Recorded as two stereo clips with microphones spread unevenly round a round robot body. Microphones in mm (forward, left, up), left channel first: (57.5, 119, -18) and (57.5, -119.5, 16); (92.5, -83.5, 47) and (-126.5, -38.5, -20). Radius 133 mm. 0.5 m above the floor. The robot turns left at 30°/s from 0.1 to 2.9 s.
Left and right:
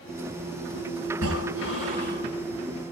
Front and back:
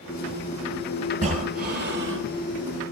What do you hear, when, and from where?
1.1 s breathing: 130° right, 7.5 m; by 2.3 s 165° right, 7.5 m